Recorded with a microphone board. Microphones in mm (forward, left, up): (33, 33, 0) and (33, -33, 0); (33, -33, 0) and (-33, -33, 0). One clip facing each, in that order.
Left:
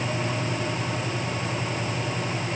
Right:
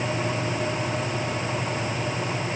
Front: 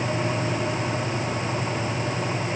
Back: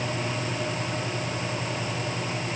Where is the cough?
No cough in this recording.